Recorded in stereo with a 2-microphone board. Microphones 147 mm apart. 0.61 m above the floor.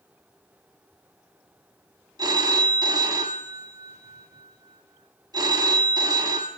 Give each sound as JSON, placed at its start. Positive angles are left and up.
{"t": 2.2, "sound": "a phone ringing", "side_deg": -25, "distance_m": 0.7}